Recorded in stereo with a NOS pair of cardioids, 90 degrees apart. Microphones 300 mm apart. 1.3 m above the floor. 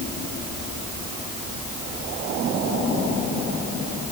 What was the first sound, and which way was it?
Only background noise.